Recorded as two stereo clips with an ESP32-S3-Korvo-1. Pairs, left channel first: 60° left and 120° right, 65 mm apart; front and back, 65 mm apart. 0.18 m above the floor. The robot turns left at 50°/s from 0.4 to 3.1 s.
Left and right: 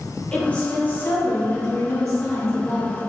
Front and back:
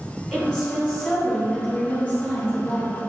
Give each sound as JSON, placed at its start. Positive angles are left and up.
{"t": 0.3, "sound": "a woman speaking", "azimuth_deg": 80, "distance_m": 1.5}